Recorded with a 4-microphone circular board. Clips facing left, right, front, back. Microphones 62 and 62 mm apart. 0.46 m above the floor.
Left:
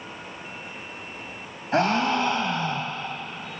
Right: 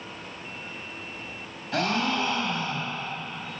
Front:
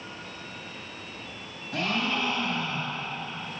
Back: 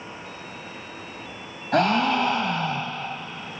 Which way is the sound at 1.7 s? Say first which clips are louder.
Left 4 dB, back 9 dB; 150° left.